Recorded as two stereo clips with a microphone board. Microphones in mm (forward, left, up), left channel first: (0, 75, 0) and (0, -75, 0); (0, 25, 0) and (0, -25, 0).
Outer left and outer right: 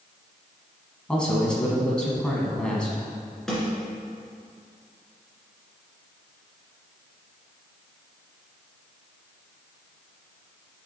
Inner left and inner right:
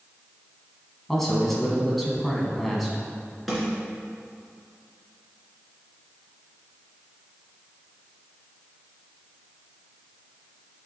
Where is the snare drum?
Centre (ahead or behind), 2 m.